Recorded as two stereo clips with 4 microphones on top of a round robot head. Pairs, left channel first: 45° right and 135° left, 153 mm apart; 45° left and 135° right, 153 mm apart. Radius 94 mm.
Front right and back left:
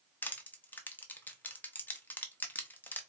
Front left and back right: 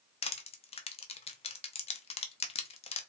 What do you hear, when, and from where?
0.2 s crushing: 25° left, 0.7 m